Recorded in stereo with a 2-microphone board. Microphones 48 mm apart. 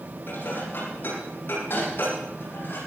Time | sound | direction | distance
0.3 | dishes clattering | 45° left (ahead or behind) | 8.5 m